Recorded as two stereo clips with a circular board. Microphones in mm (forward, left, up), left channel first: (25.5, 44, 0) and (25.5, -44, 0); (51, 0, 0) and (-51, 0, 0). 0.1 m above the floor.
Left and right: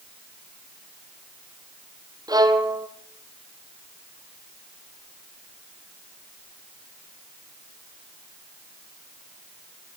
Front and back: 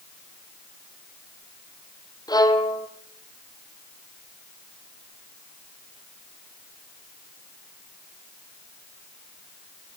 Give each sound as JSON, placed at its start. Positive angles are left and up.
{"t": 2.3, "sound": "a violin", "azimuth_deg": -50, "distance_m": 1.8}